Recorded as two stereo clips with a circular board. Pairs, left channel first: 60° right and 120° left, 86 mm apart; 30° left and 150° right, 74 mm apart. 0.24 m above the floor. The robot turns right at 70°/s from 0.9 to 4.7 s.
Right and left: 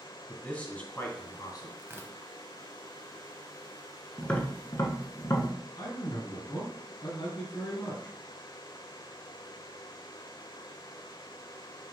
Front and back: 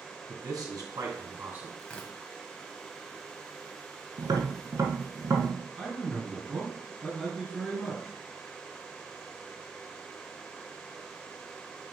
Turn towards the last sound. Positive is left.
turn(degrees=-60)